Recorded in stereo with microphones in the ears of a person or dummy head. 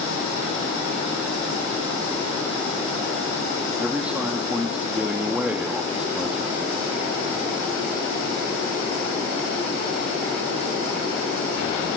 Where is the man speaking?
10° right (ahead or behind), 2.5 m.